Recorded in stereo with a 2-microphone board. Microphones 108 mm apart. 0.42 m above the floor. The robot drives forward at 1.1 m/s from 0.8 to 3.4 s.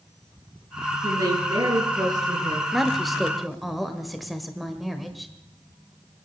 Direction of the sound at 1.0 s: 30° right (ahead or behind).